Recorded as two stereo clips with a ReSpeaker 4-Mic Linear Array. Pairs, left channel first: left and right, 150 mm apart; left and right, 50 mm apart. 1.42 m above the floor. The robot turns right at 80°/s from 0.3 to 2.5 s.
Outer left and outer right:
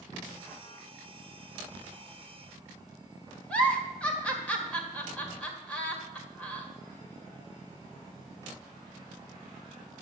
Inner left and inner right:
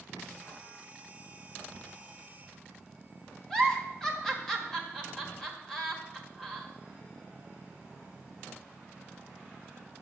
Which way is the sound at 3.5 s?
10° left (ahead or behind).